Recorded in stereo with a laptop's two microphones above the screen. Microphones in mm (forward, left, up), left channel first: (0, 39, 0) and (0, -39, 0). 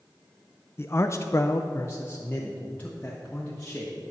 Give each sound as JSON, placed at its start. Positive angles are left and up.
{"t": 0.8, "sound": "a man speaking", "side_deg": 35, "distance_m": 0.6}